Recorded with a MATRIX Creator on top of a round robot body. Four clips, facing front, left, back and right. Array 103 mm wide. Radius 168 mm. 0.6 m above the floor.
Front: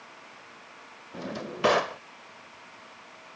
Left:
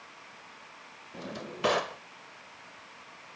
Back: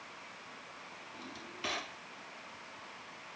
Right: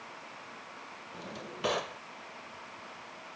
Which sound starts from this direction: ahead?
A drawer, at 1.1 s.